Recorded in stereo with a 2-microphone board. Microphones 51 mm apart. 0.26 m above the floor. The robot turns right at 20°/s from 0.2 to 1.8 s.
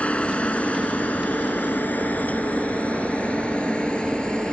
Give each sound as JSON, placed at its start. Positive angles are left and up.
{"t": 0.0, "sound": "a helicopter", "side_deg": 25}